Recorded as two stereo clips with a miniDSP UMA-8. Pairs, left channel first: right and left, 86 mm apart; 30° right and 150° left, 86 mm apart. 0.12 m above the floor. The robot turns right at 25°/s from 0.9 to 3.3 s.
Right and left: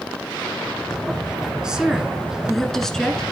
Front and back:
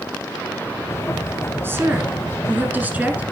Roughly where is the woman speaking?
Behind.